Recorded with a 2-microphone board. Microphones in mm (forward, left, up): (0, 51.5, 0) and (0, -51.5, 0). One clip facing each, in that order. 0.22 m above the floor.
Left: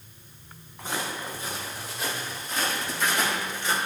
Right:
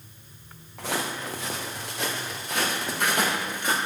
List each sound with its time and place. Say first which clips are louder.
0.8 s footsteps: right 2 dB; 85° right, 4 m; by 3.8 s 50° right (ahead or behind), 5 m